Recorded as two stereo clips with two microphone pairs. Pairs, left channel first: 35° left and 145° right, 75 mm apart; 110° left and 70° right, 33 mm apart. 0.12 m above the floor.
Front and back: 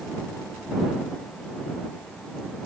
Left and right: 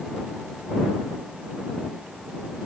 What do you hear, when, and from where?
Only background noise.